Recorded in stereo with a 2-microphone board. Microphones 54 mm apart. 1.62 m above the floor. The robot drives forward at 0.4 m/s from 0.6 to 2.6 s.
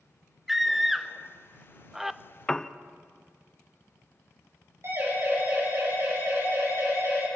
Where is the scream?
5° right (ahead or behind), 1.2 m.